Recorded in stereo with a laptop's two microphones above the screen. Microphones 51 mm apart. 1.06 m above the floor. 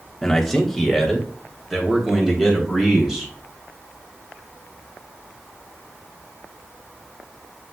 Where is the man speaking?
10° left (ahead or behind), 1.4 m; by 3.3 s 5° right (ahead or behind), 4.5 m.